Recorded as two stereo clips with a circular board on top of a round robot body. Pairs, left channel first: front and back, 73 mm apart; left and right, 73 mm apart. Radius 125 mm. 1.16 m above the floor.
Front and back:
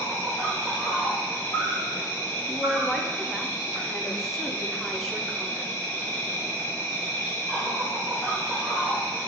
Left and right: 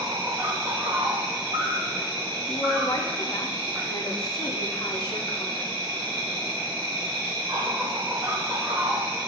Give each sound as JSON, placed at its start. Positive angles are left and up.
{"t": 0.0, "sound": "an insect", "azimuth_deg": -75, "distance_m": 1.6}
{"t": 2.5, "sound": "a woman speaking", "azimuth_deg": 90, "distance_m": 0.8}